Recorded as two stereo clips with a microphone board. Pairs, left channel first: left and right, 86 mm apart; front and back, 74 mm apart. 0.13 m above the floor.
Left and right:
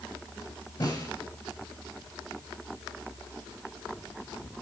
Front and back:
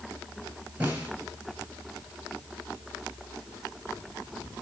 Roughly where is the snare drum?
Left.